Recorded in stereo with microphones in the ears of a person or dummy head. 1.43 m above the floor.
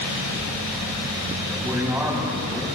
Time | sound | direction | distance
1.4 | a man speaking | centre (ahead or behind) | 8.5 m